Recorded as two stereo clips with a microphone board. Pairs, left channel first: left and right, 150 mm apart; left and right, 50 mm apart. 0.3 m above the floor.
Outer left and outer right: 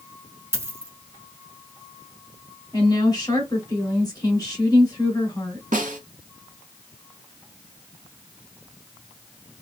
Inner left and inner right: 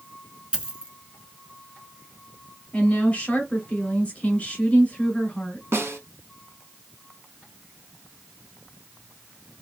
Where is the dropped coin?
20° right (ahead or behind), 0.6 m.